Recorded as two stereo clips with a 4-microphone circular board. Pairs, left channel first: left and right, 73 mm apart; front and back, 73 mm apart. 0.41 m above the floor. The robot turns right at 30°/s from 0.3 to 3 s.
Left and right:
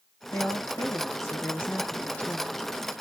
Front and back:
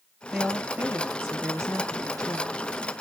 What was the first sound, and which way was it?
A woman speaking, 105° left.